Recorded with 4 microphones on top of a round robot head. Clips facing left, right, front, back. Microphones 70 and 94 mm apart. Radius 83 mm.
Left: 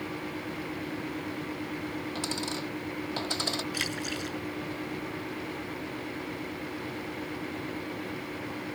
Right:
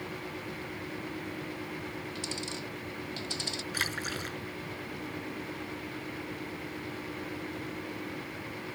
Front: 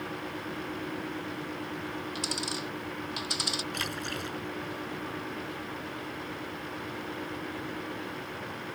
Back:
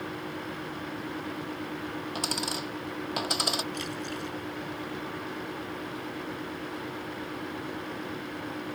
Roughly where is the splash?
Ahead right.